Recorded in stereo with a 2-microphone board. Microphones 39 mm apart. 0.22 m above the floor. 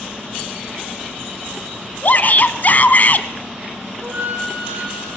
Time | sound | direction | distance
2.0 | a shout | 45° left (ahead or behind) | 2 m
4.0 | a flute | 60° right (ahead or behind) | 8.5 m